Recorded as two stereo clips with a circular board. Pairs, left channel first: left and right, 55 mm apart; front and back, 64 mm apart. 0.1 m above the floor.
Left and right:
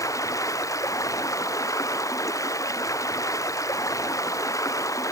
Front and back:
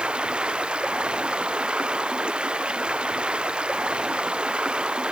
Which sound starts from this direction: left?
Running water, at 0.0 s.